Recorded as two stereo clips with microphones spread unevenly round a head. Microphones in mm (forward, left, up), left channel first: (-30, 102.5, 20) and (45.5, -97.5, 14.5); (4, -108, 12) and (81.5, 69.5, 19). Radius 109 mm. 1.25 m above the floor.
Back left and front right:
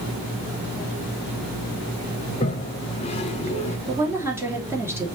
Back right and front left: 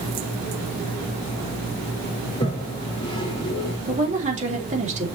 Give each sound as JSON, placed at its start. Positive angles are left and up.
{"t": 2.3, "sound": "a toilet flushing", "azimuth_deg": 175, "distance_m": 1.2}
{"t": 3.9, "sound": "a woman speaking", "azimuth_deg": 10, "distance_m": 2.5}